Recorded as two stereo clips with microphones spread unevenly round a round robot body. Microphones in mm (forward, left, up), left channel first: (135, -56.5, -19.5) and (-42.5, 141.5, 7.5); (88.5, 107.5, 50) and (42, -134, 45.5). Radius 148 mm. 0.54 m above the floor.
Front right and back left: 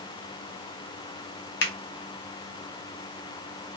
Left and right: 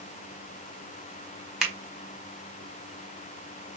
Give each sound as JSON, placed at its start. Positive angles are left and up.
{"t": 1.6, "sound": "a finger snap", "azimuth_deg": -15, "distance_m": 1.8}